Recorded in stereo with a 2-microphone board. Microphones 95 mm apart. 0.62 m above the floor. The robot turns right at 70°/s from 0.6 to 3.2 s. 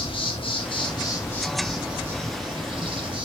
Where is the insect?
100° left, 0.7 m; by 3.2 s 75° right, 0.7 m.